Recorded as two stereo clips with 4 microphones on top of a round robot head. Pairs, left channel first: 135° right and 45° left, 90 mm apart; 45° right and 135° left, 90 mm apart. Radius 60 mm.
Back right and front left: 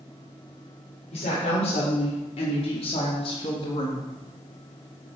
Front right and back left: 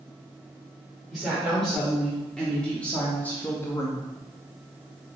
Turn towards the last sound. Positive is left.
turn(degrees=-95)